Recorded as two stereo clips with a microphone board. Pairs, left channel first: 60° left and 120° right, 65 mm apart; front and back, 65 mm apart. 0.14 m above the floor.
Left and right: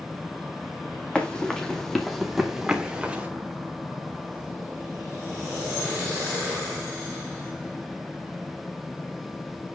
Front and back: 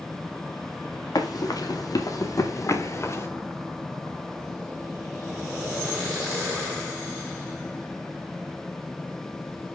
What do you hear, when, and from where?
1.1 s running footsteps: 15° right, 2.5 m; by 3.3 s 50° right, 2 m